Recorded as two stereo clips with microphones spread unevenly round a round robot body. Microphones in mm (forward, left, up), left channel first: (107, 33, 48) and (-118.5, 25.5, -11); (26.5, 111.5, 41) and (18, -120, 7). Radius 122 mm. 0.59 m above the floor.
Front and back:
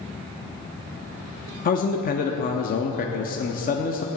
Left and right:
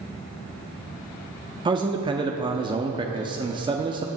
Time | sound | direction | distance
1.6 | a man speaking | 50° right | 0.7 m